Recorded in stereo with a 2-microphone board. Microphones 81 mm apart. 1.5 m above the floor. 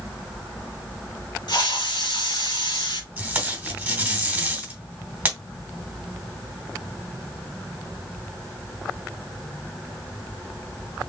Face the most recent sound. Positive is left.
turn(degrees=-20)  # may be behind; listen again after turning